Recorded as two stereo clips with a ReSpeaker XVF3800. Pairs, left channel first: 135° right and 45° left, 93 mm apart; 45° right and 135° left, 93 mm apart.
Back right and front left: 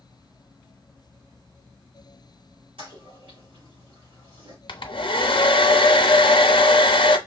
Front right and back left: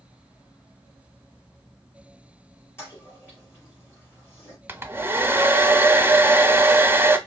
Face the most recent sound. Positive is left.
turn(degrees=-160)